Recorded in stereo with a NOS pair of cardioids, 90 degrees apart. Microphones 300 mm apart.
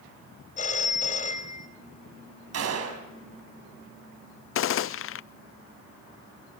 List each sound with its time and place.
0.6 s a phone ringing: 25° left, 4 m
2.5 s a gunshot: 55° right, 6 m
4.5 s a gunshot: 50° left, 0.5 m